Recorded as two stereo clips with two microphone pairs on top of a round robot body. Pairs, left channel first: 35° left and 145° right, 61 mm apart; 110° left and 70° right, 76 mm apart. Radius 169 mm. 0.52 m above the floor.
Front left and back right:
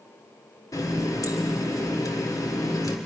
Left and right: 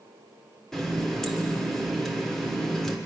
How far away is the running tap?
About 1.5 m.